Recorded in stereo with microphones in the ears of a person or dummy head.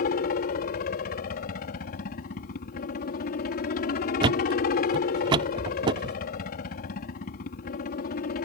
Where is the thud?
25° right (ahead or behind).